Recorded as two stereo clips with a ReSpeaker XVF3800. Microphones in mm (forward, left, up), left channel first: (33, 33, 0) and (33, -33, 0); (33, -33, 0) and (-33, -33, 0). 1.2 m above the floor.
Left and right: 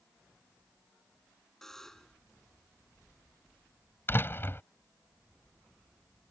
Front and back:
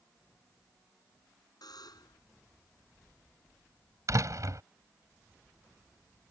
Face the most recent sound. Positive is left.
turn(degrees=145)